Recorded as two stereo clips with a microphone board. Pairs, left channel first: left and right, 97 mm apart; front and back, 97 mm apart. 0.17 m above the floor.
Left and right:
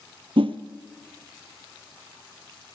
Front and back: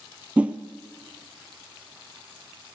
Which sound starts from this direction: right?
A whoosh, at 0.4 s.